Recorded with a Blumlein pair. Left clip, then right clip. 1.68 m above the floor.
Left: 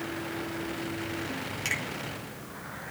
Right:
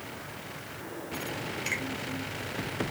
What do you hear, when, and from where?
1.6 s a finger snap: 40° left, 5.5 m